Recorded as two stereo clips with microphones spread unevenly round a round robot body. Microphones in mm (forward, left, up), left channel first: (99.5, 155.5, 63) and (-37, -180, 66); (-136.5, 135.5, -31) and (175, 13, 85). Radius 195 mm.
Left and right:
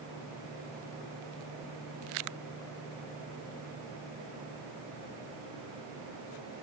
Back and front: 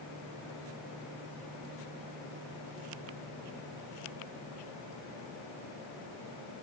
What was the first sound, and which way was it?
Only background noise.